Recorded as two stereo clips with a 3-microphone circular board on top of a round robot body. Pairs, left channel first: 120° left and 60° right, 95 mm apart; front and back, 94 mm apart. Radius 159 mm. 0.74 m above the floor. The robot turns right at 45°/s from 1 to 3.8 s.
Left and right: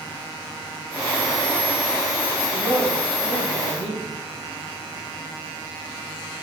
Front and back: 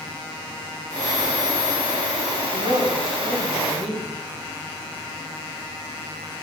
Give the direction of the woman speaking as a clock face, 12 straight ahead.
5 o'clock.